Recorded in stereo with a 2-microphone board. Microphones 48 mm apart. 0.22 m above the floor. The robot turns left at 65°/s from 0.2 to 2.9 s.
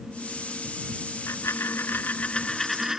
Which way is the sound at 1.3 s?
100° left.